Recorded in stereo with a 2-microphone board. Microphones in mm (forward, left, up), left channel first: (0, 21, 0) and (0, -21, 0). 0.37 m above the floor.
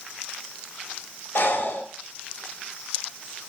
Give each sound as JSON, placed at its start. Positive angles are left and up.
{"t": 1.4, "sound": "breathing", "side_deg": 55, "distance_m": 0.7}